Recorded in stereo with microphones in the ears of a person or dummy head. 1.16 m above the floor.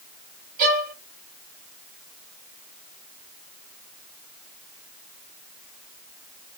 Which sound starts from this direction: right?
A violin, at 0.6 s.